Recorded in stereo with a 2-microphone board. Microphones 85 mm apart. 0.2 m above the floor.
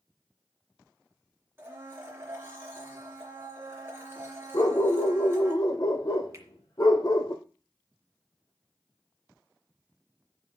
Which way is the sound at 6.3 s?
35° right (ahead or behind).